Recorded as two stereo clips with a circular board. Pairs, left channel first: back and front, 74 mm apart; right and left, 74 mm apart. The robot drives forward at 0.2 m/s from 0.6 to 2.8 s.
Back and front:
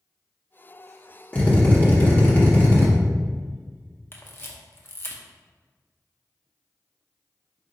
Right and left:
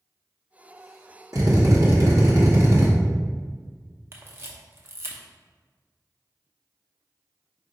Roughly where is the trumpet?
I don't hear a trumpet.